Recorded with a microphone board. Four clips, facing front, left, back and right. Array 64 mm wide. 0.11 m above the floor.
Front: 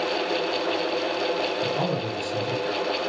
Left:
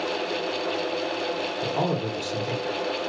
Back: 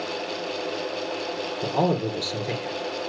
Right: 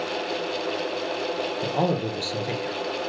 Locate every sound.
1.6 s a man speaking: 140° right, 2 m